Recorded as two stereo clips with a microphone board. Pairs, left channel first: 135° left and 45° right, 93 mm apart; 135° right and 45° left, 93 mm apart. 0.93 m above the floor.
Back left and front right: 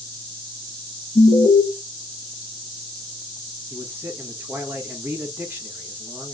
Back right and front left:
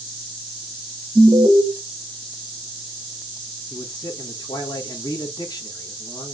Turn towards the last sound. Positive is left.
turn(degrees=-105)